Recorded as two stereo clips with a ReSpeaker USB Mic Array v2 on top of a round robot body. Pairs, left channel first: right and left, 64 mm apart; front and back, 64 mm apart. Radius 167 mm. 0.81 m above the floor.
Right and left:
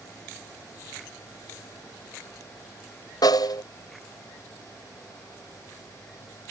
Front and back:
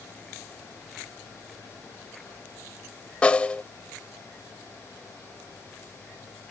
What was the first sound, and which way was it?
A snare drum, 75° right.